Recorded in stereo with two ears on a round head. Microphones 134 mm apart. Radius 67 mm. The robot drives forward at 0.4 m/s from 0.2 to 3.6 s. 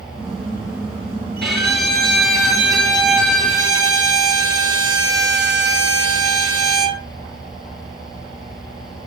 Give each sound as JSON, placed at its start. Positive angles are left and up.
{"t": 1.4, "sound": "a violin", "side_deg": 0, "distance_m": 3.0}